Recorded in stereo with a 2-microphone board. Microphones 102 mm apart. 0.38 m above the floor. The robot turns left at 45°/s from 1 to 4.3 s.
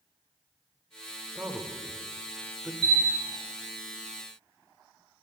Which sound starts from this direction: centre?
A man speaking, at 1.4 s.